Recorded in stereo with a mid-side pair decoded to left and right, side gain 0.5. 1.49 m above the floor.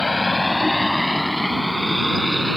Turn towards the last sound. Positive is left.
turn(degrees=0)